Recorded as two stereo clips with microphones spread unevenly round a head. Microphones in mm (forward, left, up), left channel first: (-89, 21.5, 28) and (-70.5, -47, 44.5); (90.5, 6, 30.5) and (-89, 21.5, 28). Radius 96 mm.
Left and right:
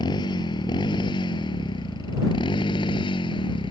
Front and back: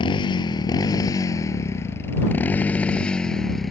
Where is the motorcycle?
60° left; by 3.7 s 85° left.